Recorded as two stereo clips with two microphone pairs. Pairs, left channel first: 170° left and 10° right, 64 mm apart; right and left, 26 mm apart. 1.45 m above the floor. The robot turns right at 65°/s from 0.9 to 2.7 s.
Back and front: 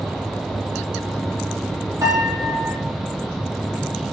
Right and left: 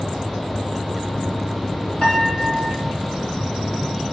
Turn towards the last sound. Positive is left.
turn(degrees=5)